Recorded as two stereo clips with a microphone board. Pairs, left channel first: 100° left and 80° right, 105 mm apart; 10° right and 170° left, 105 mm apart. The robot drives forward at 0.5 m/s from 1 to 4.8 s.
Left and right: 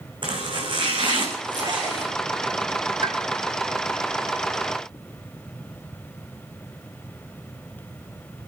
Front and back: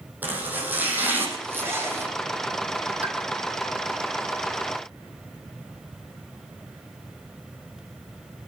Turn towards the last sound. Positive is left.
turn(degrees=-135)